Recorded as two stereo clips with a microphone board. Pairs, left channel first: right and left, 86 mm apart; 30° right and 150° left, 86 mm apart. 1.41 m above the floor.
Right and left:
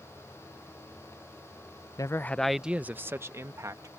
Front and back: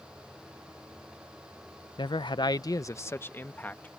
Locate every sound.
2.0 s a man speaking: 45° right; by 3.9 s 40° left